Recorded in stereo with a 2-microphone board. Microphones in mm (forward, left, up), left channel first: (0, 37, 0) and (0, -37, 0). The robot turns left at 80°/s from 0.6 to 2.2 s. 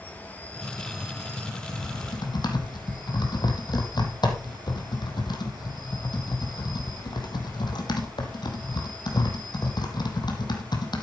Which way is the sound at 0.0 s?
25° left.